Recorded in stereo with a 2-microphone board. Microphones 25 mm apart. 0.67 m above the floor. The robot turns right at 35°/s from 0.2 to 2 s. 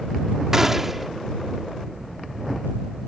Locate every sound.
0.5 s a gunshot: 25° right (ahead or behind); by 1.1 s 10° right (ahead or behind)